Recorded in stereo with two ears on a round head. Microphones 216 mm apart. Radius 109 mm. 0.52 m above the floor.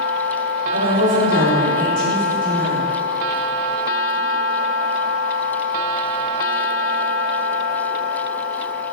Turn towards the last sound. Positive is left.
turn(degrees=-35)  # may be behind; listen again after turning